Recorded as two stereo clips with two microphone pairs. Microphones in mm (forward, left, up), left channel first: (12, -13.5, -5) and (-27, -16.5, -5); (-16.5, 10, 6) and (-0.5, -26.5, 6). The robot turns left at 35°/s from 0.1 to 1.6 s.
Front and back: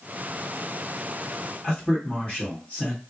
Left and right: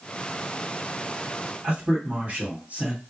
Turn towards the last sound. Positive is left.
turn(degrees=-35)